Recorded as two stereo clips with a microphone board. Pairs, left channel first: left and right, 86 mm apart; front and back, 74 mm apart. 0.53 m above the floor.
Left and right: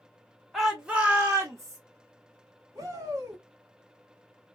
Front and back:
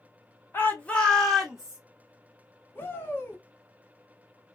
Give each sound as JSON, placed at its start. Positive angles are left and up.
{"t": 0.5, "sound": "a shout", "azimuth_deg": 0, "distance_m": 0.8}
{"t": 2.8, "sound": "a shout", "azimuth_deg": -50, "distance_m": 1.0}